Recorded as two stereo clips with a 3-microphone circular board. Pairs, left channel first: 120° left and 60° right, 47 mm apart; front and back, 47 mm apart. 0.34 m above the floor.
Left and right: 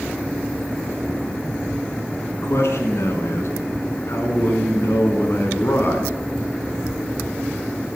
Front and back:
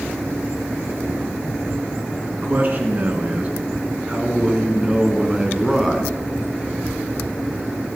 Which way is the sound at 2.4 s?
130° left.